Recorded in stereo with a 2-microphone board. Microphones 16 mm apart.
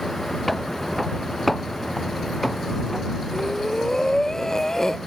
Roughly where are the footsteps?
Centre.